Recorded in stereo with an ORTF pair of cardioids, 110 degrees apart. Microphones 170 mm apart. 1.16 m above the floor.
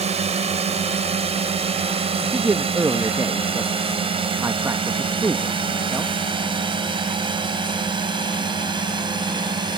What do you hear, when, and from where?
0.0 s a drone: 40° right; by 9.8 s 25° right
2.3 s a man speaking: 15° right